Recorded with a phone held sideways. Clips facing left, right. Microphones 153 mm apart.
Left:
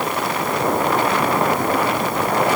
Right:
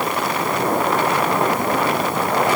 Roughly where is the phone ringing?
No phone ringing in this recording.